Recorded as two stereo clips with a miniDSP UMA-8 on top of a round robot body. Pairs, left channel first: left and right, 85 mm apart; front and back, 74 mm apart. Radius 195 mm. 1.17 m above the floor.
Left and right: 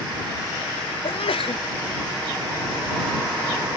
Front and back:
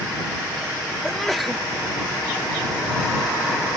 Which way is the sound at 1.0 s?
90° left.